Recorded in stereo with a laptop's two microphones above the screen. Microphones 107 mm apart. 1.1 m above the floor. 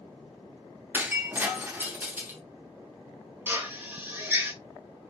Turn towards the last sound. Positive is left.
turn(degrees=-20)  # may be behind; listen again after turning